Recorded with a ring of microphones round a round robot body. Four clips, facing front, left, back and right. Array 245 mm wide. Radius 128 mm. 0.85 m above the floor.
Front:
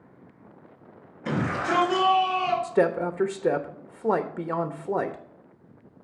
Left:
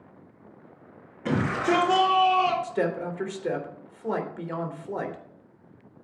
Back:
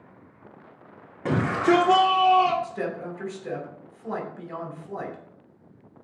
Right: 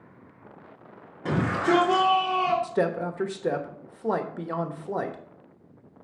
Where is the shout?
165° right, 2.5 m; by 2.5 s 170° left, 3 m.